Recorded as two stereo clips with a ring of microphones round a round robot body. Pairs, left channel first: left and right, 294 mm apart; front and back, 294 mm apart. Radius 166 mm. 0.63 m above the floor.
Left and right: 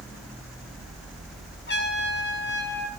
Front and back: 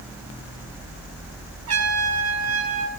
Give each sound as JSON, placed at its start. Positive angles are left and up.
{"t": 1.7, "sound": "a trumpet", "azimuth_deg": 145, "distance_m": 8.5}